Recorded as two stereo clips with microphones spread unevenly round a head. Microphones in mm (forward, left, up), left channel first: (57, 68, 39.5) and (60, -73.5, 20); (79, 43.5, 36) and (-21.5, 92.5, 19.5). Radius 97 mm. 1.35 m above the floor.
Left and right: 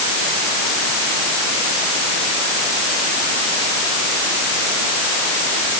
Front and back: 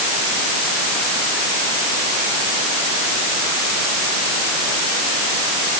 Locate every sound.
Only background noise.